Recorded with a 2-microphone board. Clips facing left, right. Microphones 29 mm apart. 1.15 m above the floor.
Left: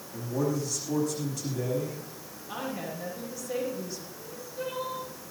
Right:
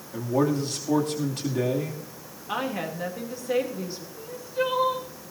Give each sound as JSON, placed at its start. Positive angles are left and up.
{"t": 0.1, "sound": "a man speaking", "side_deg": -55, "distance_m": 2.5}
{"t": 2.5, "sound": "a woman speaking", "side_deg": -45, "distance_m": 3.0}
{"t": 4.2, "sound": "crying", "side_deg": -75, "distance_m": 2.5}